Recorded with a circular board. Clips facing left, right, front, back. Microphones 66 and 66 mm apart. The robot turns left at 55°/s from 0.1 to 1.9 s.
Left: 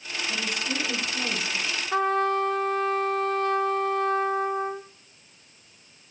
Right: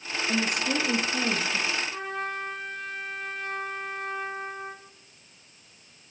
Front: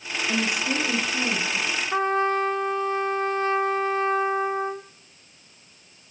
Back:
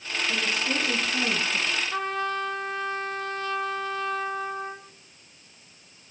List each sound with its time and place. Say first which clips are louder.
0.3 s a woman speaking: right 4 dB, front 3 dB; 60° right, 3 m; by 1.8 s 140° right, 3 m
1.9 s a trumpet: left 10 dB, front 10 dB; 60° left, 1.5 m